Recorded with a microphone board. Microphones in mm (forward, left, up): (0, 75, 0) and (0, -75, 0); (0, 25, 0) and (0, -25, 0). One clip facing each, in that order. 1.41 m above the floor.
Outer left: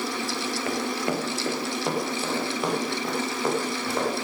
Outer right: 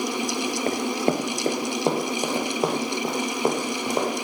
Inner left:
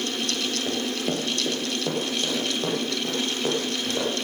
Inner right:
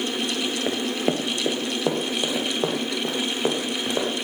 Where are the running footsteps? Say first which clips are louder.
Outer right 4 dB, inner right 5 dB; 30° right (ahead or behind), 1.6 m; by 4.1 s 25° right (ahead or behind), 5.5 m.